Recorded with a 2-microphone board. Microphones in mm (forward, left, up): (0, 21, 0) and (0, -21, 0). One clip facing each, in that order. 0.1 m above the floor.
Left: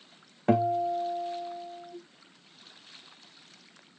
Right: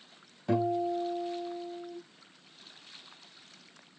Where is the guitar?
65° left (ahead or behind), 2.5 m.